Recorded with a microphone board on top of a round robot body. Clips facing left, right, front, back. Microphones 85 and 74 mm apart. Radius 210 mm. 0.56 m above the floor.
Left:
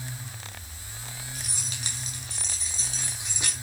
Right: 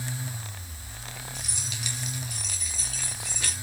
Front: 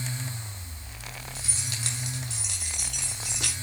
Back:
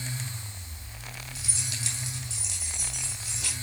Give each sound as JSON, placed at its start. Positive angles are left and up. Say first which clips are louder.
{"t": 1.4, "sound": "keys jangling", "louder": "right 1 dB, front 1 dB", "azimuth_deg": 45, "distance_m": 5.5}